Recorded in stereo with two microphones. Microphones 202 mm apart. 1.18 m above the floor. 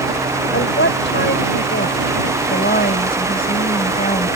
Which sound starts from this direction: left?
A woman speaking, at 0.5 s.